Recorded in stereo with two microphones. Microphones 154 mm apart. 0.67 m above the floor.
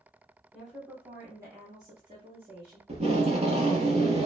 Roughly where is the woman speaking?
Centre.